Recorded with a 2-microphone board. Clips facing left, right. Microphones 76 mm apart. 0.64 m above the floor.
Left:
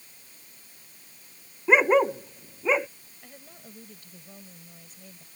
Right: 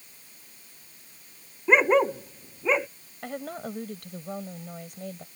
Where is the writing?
I don't hear writing.